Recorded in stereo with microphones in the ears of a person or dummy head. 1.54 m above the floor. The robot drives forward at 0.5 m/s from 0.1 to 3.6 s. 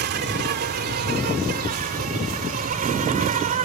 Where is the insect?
55° right (ahead or behind); by 3.6 s 40° right (ahead or behind).